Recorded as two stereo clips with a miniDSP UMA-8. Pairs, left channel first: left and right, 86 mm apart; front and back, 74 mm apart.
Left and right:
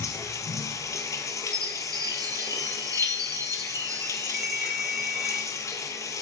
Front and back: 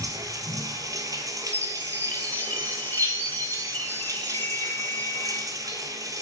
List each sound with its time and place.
0.0 s running water: 140° left, 1.8 m
1.5 s a chime: 60° right, 1.4 m
4.3 s a ringtone: 15° right, 0.9 m